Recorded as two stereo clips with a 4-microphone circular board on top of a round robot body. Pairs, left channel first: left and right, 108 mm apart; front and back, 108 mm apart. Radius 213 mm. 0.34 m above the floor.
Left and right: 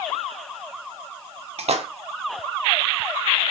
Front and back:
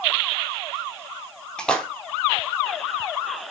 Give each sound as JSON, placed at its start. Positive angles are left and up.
{"t": 1.6, "sound": "a splash", "azimuth_deg": -80, "distance_m": 0.8}